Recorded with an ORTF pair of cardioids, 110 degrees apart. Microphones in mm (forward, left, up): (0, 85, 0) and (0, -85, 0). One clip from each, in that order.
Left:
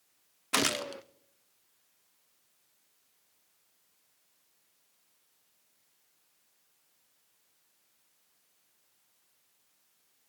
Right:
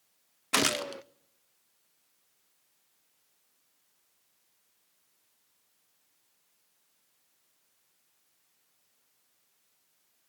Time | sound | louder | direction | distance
0.5 | a gunshot | right 2 dB | 10° right | 0.7 m